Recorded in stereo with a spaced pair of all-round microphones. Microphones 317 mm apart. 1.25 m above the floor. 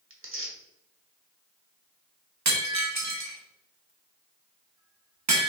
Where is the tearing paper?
40° right (ahead or behind), 1.1 m.